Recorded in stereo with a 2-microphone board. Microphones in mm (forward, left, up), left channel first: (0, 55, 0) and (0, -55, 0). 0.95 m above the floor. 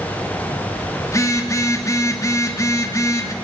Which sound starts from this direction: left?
A phone buzzing, at 1.1 s.